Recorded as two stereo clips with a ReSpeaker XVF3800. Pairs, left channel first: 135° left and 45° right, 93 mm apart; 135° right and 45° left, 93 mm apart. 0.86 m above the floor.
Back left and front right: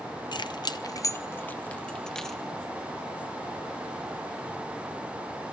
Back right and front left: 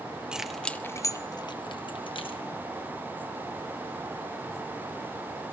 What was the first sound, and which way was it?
Keys jangling, 125° left.